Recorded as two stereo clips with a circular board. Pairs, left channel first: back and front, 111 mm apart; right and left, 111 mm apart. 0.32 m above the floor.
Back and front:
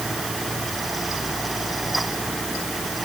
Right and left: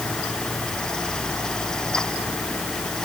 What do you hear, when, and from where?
Only background noise.